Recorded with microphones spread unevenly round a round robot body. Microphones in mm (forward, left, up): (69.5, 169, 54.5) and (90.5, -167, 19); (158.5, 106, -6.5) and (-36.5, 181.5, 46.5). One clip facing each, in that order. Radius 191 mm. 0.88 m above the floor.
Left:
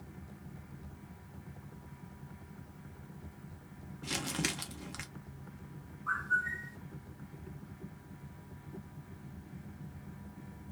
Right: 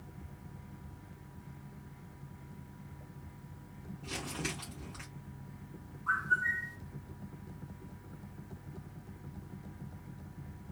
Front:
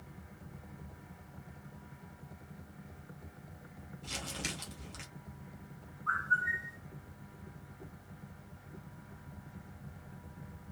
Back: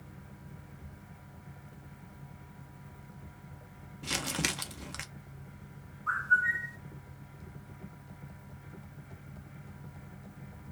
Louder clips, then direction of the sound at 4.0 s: Left 3 dB, back 8 dB; 145° left.